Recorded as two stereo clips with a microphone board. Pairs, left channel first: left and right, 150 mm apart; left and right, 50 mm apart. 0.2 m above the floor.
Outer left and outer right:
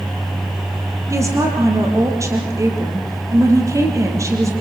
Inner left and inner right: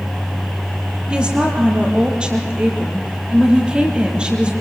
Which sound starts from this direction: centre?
A woman speaking, at 1.1 s.